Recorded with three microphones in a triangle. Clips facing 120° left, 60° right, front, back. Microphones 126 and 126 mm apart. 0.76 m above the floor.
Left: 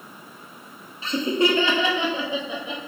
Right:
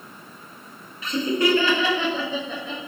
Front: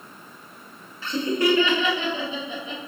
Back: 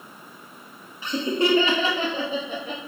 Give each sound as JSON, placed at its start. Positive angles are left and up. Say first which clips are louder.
{"t": 1.0, "sound": "laughter", "louder": "even, front 1 dB", "azimuth_deg": 125, "distance_m": 1.0}